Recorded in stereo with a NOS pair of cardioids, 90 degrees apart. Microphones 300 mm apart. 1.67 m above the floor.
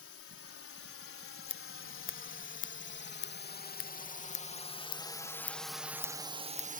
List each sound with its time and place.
0.0 s a drone: 50° left; by 6.8 s 30° right
1.5 s scissors: 45° left